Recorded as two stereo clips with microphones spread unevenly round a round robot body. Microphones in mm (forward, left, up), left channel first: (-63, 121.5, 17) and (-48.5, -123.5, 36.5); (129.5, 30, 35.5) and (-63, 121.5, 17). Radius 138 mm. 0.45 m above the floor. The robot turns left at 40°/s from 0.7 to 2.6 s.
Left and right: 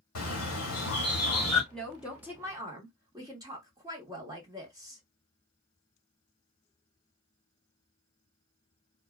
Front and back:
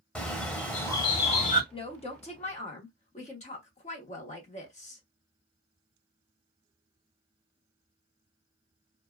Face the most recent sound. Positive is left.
turn(degrees=-20)